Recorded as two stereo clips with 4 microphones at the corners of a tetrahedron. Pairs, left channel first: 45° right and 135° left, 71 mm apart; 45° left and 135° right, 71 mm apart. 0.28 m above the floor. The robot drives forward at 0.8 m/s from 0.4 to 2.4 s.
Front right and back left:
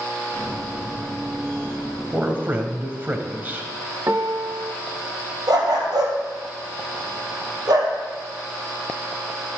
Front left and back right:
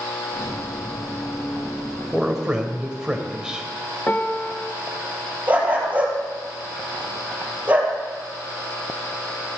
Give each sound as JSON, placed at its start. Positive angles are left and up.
{"t": 2.1, "sound": "a man speaking", "azimuth_deg": 140, "distance_m": 1.0}
{"t": 4.1, "sound": "a piano", "azimuth_deg": 95, "distance_m": 0.6}
{"t": 5.5, "sound": "a dog barking", "azimuth_deg": 155, "distance_m": 2.5}